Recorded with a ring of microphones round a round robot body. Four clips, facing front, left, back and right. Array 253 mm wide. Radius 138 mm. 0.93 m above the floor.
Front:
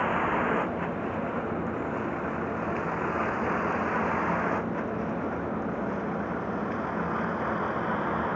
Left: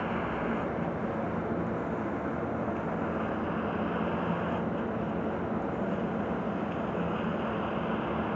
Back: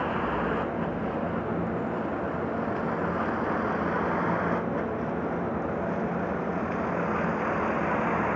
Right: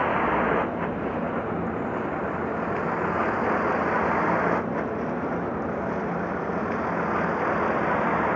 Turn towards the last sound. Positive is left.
turn(degrees=-95)